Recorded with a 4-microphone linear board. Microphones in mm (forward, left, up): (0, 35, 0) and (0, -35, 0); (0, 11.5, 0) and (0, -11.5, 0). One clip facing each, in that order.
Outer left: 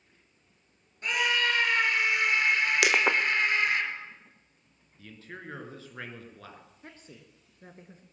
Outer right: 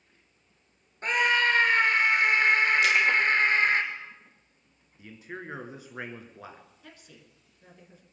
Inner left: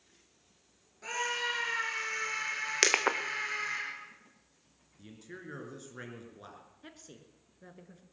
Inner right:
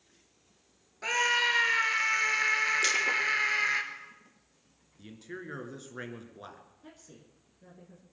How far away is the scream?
About 2 m.